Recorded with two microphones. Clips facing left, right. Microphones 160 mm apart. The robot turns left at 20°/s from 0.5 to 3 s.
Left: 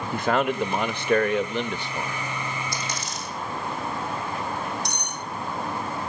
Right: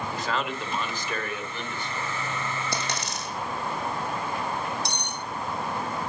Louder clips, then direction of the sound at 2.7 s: Right 1 dB; 75° right (ahead or behind).